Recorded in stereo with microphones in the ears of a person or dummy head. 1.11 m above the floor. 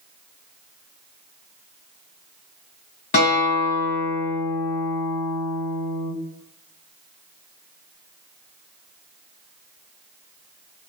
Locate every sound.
3.1 s a guitar: 45° left (ahead or behind), 1.5 m